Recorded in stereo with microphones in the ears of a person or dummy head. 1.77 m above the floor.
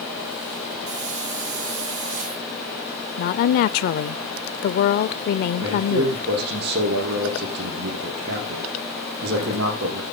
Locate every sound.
0.9 s a hiss: 45° right (ahead or behind), 8.5 m
3.2 s a woman speaking: 50° left (ahead or behind), 0.6 m
5.6 s a man speaking: 60° right (ahead or behind), 5.5 m